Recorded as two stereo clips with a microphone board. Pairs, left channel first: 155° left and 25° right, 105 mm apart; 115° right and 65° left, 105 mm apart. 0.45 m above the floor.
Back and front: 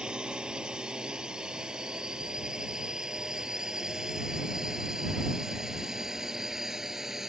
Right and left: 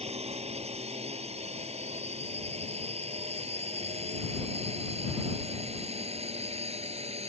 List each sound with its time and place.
0.0 s a drone: 60° left; by 7.3 s 65° left